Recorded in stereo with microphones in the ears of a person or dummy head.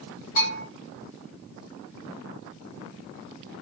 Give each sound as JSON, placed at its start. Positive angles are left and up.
{"t": 0.4, "sound": "a bell", "side_deg": 40, "distance_m": 1.1}